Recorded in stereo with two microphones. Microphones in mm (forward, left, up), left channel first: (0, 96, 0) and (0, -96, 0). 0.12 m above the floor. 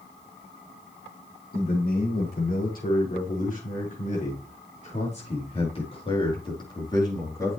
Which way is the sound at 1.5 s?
55° left (ahead or behind).